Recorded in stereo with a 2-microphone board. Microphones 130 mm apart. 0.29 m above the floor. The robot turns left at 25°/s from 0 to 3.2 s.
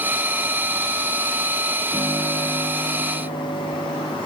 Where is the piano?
150° left, 5 m; by 4.2 s 120° left, 5 m.